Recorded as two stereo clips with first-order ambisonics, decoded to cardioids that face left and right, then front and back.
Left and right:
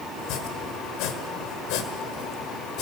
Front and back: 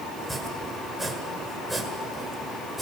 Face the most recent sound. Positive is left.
turn(degrees=90)